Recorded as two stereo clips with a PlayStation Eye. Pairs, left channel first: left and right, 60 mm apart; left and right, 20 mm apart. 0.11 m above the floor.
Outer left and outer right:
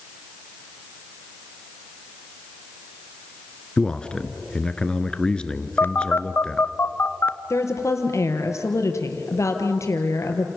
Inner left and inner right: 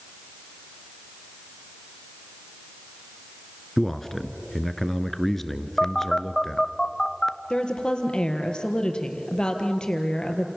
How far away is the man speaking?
About 1.3 m.